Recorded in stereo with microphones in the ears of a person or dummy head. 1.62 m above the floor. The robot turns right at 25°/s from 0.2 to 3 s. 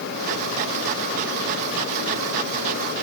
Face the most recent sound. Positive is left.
No sound to turn to.